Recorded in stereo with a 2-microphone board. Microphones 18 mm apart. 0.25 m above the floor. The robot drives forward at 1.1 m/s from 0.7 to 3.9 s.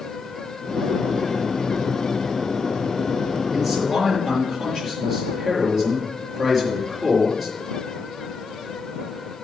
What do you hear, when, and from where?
3.5 s a man speaking: 5° left (ahead or behind), 5 m